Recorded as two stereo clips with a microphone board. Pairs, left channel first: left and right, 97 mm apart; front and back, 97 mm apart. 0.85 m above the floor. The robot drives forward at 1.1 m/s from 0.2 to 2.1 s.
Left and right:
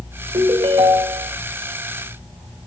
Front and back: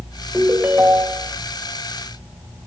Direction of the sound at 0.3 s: 105° right.